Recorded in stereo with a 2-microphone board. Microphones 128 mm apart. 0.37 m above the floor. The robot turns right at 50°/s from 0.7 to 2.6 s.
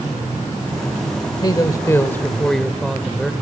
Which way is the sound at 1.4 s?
120° left.